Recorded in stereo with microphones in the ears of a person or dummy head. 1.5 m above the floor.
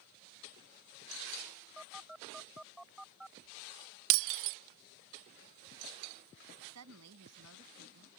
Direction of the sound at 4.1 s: 70° right (ahead or behind).